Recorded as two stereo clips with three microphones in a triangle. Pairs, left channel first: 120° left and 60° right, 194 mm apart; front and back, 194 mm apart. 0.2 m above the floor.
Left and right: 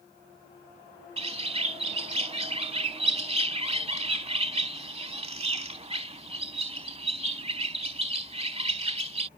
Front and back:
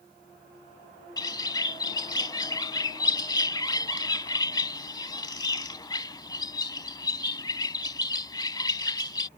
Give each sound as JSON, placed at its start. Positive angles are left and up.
{"t": 1.2, "sound": "a bird", "azimuth_deg": -50}